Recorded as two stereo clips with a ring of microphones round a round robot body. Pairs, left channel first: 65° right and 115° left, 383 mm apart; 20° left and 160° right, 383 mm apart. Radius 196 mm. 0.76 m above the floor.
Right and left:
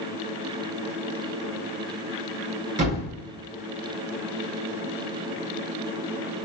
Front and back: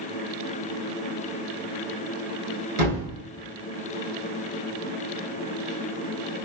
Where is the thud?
170° left, 2.5 m.